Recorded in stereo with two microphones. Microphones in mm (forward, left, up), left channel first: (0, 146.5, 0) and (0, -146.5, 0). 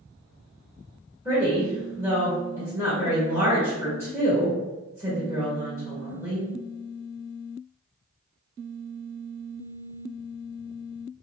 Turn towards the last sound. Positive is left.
turn(degrees=-10)  # may be behind; listen again after turning